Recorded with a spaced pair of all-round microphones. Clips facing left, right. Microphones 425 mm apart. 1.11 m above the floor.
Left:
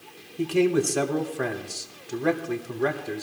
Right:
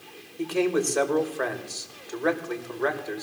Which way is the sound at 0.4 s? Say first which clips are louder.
Left 3 dB; 45° left (ahead or behind).